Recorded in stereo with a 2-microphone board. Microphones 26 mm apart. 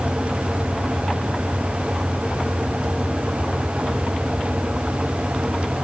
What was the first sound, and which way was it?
Only background noise.